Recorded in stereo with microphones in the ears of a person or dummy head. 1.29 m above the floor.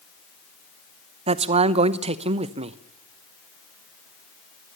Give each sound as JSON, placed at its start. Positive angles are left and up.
{"t": 1.3, "sound": "a man speaking", "side_deg": -35, "distance_m": 0.8}